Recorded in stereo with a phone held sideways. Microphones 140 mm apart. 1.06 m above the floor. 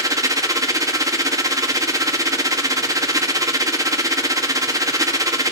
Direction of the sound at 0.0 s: 25° right (ahead or behind).